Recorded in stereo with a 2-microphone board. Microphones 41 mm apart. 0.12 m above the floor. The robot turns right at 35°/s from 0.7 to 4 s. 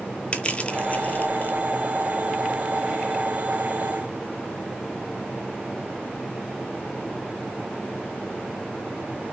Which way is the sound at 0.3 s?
30° left (ahead or behind).